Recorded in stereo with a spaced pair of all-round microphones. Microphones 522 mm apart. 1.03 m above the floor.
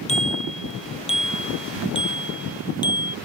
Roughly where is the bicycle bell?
Centre.